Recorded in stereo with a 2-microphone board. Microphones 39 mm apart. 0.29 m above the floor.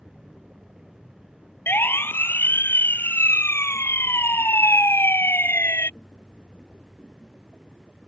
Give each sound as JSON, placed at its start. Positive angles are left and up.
{"t": 1.7, "sound": "a siren", "side_deg": 60}